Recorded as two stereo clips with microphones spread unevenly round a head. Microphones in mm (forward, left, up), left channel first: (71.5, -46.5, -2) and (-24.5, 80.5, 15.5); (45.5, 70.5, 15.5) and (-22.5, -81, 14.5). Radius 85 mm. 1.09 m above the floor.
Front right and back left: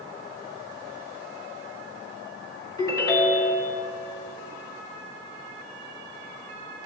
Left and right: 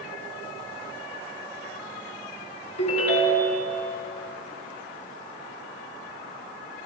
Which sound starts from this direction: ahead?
A ringtone, at 2.8 s.